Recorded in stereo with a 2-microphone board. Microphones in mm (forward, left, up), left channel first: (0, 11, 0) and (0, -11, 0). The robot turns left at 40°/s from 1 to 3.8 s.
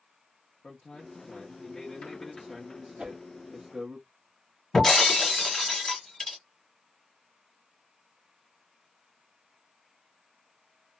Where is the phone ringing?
I don't hear a phone ringing.